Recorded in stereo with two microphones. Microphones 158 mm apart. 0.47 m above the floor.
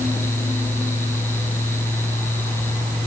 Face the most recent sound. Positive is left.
No sound to turn to.